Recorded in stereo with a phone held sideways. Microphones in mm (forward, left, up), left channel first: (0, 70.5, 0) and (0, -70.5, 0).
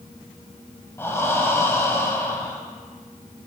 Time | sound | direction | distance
1.0 | breathing | 20° left (ahead or behind) | 1.0 m